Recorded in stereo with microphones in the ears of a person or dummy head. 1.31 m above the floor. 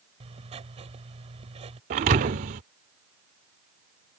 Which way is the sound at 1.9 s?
25° right (ahead or behind).